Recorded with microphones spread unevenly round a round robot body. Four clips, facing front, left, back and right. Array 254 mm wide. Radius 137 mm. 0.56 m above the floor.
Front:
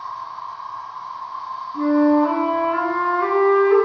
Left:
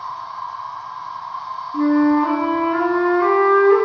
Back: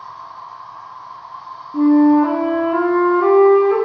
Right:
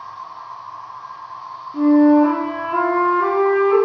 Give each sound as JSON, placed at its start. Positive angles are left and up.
{"t": 0.0, "sound": "an insect", "azimuth_deg": 90, "distance_m": 0.7}
{"t": 1.7, "sound": "a flute", "azimuth_deg": -165, "distance_m": 0.6}